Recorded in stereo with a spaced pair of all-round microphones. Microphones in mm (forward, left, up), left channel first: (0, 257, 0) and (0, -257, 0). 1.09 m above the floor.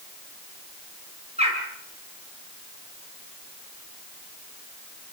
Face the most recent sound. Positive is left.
turn(degrees=-10)  # may be behind; listen again after turning